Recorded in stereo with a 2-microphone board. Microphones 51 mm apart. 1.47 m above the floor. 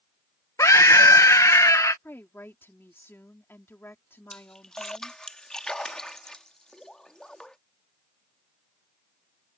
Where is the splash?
15° left (ahead or behind).